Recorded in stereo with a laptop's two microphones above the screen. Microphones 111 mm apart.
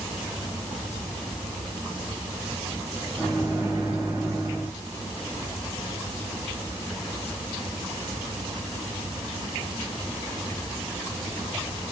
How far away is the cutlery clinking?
No cutlery clinking in this recording.